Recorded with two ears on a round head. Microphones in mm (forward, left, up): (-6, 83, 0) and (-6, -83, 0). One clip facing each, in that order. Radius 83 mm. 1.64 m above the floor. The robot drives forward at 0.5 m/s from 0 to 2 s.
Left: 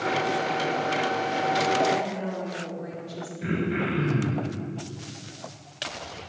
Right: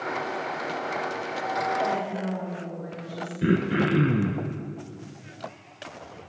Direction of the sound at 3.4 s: 65° right (ahead or behind).